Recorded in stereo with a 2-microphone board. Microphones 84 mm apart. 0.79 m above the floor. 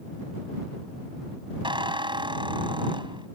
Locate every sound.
1.6 s a squeak: 75° right (ahead or behind)